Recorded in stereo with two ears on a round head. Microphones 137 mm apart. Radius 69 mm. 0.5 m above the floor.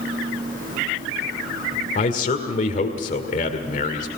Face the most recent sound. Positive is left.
turn(degrees=50)  # may be behind; listen again after turning